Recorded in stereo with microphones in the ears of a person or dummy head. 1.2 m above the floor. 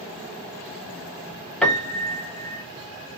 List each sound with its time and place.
1.6 s a piano: 5° left (ahead or behind), 0.8 m